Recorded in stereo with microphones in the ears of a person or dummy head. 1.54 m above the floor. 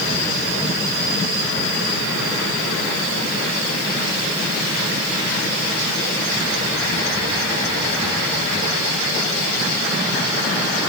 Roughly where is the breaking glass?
I don't hear breaking glass.